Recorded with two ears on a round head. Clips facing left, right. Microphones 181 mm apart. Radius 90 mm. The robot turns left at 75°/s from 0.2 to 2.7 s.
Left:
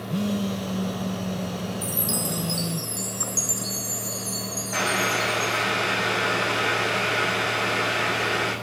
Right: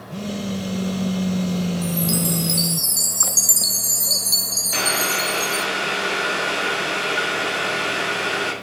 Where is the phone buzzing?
20° left, 0.9 m; by 2.8 s 170° right, 0.9 m.